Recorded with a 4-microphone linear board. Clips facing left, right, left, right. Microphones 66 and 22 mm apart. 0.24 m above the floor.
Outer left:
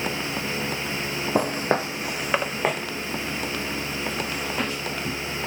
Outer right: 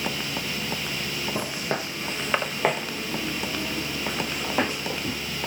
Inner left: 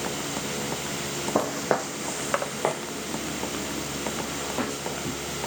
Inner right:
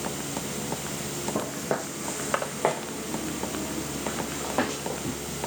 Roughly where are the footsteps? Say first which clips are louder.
Outer left 9 dB, inner left 6 dB; left.